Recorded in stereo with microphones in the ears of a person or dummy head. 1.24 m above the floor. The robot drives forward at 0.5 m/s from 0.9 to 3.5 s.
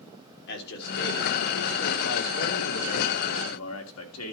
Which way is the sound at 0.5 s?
65° left (ahead or behind).